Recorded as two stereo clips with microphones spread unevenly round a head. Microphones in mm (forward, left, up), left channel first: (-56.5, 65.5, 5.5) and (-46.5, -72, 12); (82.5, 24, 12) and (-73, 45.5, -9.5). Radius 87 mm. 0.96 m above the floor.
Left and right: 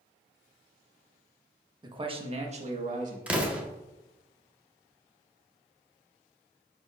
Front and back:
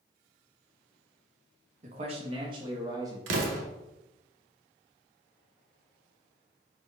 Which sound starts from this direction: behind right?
A man speaking, at 1.8 s.